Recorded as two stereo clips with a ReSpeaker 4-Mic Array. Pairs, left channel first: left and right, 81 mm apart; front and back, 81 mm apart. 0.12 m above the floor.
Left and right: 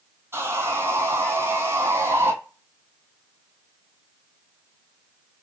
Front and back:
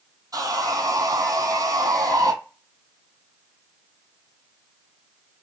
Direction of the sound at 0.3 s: 140° right.